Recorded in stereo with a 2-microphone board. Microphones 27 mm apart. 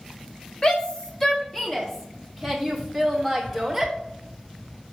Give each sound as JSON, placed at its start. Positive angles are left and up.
{"t": 0.6, "sound": "a shout", "side_deg": 30, "distance_m": 1.2}